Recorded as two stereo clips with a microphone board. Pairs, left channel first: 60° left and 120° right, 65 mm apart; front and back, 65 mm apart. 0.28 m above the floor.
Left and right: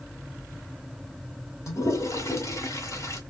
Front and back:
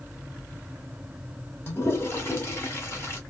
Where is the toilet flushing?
45° left, 1.7 m.